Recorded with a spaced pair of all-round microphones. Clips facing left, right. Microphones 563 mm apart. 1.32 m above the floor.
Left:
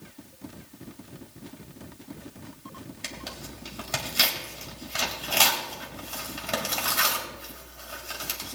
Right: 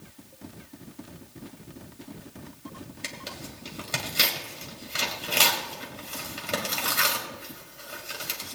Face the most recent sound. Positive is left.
turn(degrees=15)  # may be behind; listen again after turning